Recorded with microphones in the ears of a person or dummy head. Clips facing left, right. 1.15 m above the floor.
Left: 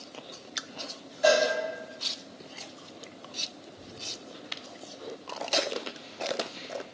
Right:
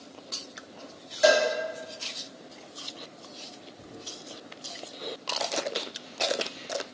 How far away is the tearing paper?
About 1.1 m.